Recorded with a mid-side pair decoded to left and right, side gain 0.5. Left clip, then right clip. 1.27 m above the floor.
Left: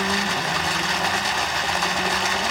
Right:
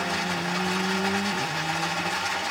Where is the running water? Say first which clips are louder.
Left 5 dB; 60° left, 0.9 m.